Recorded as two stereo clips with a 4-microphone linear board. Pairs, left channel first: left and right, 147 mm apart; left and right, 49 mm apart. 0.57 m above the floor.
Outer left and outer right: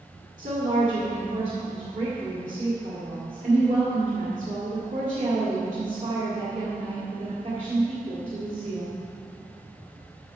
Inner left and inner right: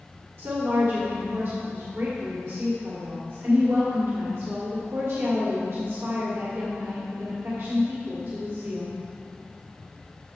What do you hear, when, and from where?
0.4 s a woman speaking: 60° right (ahead or behind), 2 m